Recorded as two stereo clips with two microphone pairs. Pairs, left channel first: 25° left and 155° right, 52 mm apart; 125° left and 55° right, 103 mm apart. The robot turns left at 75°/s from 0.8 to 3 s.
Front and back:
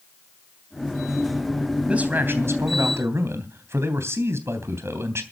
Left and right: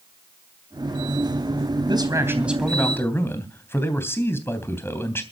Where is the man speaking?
90° right, 3 m; by 5.2 s 175° right, 3 m.